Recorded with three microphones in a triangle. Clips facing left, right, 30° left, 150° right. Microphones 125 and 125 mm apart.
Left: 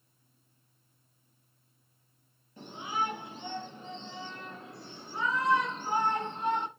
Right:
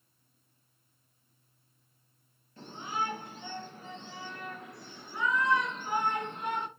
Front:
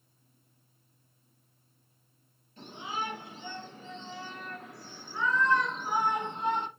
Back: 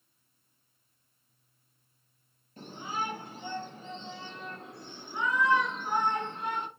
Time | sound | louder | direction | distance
2.6 | a shout | left 1 dB, back 1 dB | 160° left | 4.5 m